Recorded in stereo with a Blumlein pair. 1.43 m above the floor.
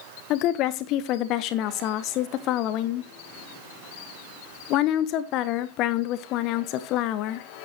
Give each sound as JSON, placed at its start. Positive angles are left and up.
{"t": 0.3, "sound": "a woman speaking", "azimuth_deg": 40, "distance_m": 1.1}